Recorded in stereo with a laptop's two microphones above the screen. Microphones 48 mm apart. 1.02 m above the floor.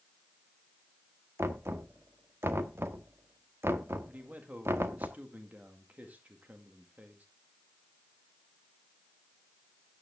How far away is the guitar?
No guitar in this recording.